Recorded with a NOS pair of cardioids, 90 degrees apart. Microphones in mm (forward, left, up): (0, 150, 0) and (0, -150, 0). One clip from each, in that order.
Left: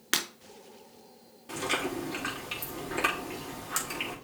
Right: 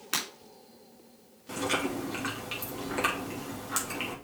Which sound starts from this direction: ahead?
Chewing, at 1.5 s.